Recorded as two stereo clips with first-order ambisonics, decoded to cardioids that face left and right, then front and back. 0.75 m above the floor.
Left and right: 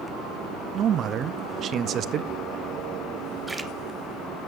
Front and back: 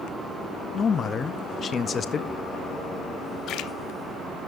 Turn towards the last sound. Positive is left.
turn(degrees=-10)